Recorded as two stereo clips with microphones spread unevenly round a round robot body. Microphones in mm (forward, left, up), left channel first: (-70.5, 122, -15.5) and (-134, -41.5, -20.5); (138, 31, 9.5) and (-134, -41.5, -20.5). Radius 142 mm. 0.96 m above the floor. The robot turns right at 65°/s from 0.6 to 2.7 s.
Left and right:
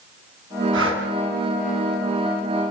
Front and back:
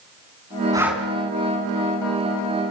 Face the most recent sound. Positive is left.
turn(degrees=40)